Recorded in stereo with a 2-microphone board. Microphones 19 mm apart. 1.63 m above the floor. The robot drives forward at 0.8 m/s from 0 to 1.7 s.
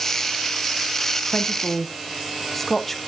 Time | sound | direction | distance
1.3 | a woman speaking | 15° left (ahead or behind) | 0.9 m